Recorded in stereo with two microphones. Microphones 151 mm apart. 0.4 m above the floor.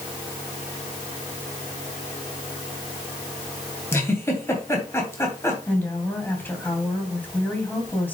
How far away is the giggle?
About 2.5 m.